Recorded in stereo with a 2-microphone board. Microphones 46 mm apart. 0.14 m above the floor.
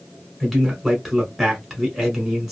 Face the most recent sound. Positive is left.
turn(degrees=-5)  # may be behind; listen again after turning